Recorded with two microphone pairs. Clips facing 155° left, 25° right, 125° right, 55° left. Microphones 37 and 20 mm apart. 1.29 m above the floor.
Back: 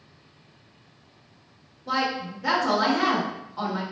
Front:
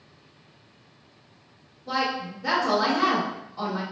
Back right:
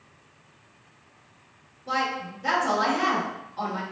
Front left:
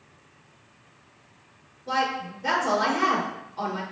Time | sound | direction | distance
1.9 | a woman speaking | 165° left | 1.7 m